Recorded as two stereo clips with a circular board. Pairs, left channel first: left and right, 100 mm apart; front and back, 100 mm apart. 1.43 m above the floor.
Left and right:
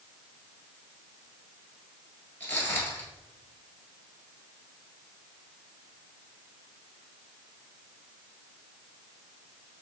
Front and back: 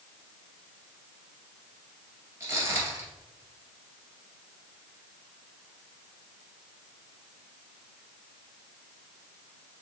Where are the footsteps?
140° left, 1.6 m.